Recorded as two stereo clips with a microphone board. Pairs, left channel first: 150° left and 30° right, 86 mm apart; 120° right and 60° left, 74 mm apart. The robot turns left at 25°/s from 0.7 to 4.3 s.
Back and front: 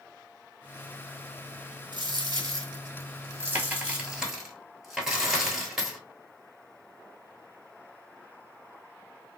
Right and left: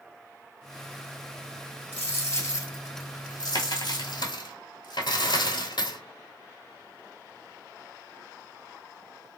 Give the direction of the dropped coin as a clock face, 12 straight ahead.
2 o'clock.